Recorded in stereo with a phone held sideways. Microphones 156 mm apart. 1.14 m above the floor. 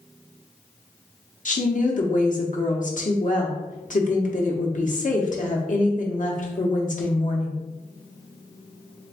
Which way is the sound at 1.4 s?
55° left (ahead or behind).